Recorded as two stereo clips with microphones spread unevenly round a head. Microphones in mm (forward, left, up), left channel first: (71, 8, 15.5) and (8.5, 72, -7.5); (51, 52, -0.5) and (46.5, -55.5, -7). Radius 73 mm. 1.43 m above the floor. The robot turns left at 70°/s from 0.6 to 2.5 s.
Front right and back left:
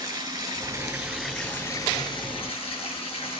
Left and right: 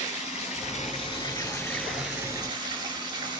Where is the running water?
95° left, 8 m; by 3.4 s 40° right, 8 m.